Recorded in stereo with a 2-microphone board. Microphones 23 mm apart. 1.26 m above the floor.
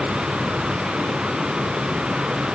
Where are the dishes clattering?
I don't hear dishes clattering.